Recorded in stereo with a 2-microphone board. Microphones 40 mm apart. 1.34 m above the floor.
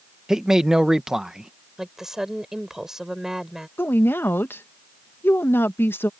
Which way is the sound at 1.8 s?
10° right (ahead or behind).